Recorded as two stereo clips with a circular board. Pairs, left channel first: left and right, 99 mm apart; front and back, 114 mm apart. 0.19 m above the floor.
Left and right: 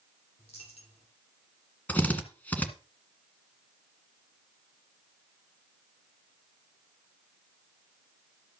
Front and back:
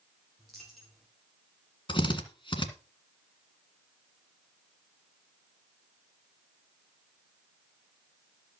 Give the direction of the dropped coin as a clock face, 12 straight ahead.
9 o'clock.